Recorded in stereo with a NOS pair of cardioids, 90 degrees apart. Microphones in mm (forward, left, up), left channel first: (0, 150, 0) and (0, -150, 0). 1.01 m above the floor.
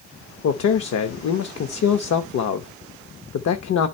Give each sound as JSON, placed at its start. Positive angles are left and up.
{"t": 0.4, "sound": "a man speaking", "azimuth_deg": 55, "distance_m": 0.9}